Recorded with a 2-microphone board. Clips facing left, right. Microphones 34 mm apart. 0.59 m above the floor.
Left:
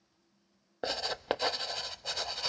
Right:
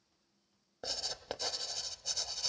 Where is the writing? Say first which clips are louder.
Left 8 dB; 40° left (ahead or behind), 0.6 m.